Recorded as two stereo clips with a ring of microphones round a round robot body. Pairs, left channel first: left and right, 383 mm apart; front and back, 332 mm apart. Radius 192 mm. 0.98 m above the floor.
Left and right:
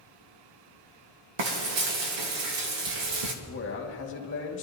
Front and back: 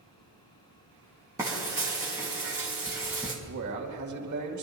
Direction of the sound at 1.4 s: 100° right.